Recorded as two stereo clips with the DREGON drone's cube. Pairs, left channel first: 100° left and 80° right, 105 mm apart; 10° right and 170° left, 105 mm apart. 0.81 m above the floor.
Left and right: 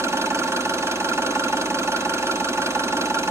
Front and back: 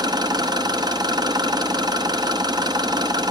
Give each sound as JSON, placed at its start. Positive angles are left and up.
{"t": 0.0, "sound": "an engine running", "azimuth_deg": -140, "distance_m": 0.7}